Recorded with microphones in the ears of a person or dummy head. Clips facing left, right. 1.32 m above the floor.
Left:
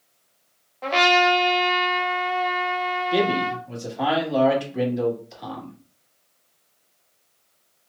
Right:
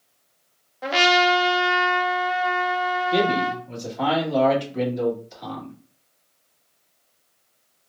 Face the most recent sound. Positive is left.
turn(degrees=5)  # may be behind; listen again after turning